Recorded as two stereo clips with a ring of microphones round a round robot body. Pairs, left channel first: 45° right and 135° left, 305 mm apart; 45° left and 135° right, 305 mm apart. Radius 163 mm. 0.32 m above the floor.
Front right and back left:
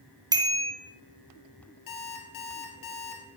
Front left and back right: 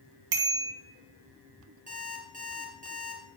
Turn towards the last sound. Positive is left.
turn(degrees=-70)